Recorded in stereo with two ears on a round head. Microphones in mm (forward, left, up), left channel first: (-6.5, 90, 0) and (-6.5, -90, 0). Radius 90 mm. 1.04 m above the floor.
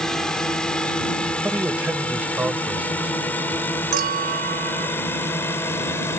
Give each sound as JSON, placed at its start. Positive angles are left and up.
{"t": 0.0, "sound": "a drone", "side_deg": 5}
{"t": 1.4, "sound": "a man speaking", "side_deg": -10}
{"t": 3.9, "sound": "a clink", "side_deg": -50}